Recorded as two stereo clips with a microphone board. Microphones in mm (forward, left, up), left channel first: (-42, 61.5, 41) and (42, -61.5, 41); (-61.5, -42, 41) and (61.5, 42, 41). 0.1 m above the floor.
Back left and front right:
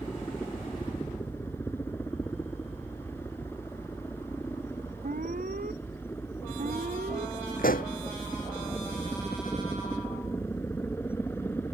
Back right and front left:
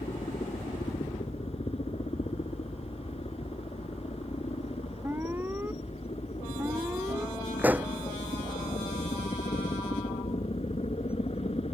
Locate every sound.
0.0 s a helicopter: 165° right
5.0 s an alarm: 40° right
7.6 s a pop: 115° left